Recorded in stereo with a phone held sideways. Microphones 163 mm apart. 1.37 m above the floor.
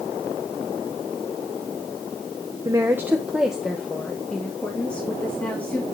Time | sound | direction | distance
2.6 | a woman speaking | 20° right (ahead or behind) | 1.0 m